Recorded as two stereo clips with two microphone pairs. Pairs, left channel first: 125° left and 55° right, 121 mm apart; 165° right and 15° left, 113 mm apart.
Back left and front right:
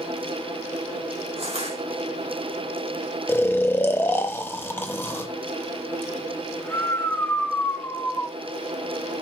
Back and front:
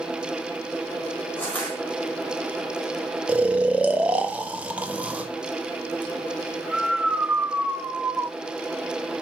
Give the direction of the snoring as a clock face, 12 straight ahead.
9 o'clock.